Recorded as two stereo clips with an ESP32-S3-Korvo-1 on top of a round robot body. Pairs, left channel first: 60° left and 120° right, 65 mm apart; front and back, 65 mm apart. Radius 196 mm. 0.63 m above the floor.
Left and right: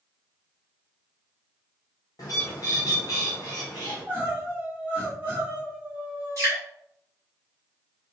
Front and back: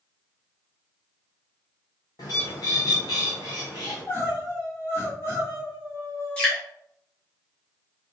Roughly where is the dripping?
Right.